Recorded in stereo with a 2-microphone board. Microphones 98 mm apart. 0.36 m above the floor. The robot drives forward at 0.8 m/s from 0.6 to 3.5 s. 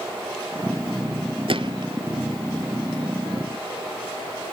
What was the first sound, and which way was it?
A gunshot, 65° right (ahead or behind).